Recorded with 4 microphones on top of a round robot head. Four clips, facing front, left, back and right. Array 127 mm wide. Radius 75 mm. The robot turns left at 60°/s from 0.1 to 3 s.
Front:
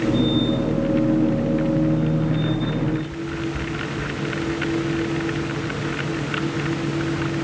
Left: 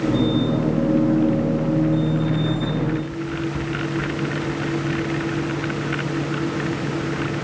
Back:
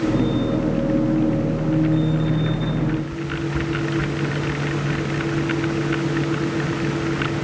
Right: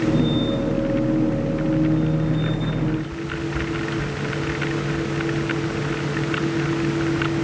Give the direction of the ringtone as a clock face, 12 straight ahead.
I don't hear a ringtone.